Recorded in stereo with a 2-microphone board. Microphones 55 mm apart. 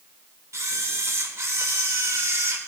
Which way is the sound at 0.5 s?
60° right (ahead or behind).